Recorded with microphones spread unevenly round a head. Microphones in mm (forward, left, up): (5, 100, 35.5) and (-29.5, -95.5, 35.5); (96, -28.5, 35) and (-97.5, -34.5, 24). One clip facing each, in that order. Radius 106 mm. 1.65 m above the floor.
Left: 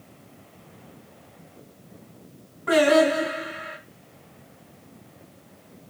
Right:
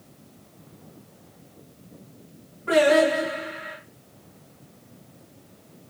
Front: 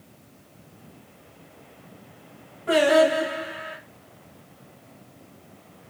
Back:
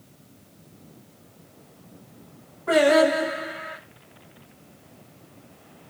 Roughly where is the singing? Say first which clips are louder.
Even, back 1 dB; ahead left.